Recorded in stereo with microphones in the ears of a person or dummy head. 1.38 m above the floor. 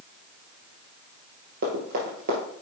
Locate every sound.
1.6 s running footsteps: 50° right (ahead or behind), 2 m